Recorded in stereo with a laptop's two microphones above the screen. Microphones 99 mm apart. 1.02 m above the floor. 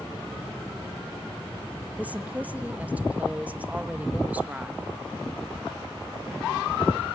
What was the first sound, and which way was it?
A woman speaking, 15° right (ahead or behind).